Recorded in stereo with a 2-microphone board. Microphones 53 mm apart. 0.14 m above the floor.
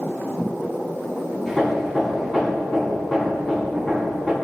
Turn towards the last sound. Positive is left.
turn(degrees=5)  # may be behind; listen again after turning